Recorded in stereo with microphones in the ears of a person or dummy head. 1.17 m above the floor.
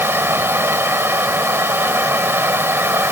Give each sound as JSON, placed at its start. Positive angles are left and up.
{"t": 0.0, "sound": "a fan", "side_deg": -10}